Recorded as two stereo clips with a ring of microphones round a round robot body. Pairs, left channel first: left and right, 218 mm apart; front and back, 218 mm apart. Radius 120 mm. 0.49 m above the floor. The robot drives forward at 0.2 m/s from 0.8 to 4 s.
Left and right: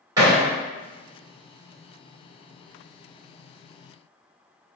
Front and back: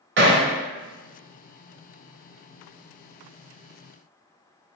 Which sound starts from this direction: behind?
Hammering, at 0.2 s.